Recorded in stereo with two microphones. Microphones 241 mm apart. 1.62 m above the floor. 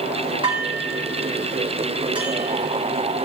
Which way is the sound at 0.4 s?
20° right (ahead or behind).